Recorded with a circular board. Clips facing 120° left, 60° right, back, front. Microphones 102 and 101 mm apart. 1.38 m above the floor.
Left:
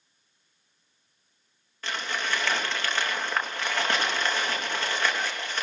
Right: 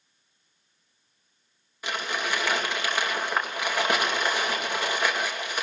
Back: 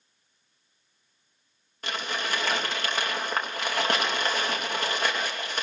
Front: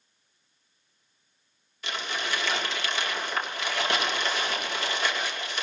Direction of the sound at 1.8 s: 140° right.